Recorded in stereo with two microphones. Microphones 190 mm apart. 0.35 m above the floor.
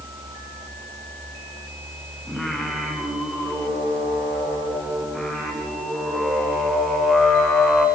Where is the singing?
Centre (ahead or behind), 4 m.